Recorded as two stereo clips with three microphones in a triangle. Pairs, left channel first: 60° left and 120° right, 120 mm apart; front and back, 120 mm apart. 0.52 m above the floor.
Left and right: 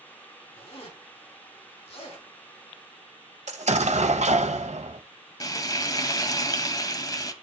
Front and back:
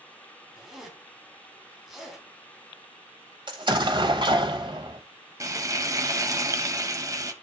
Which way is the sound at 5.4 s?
115° left.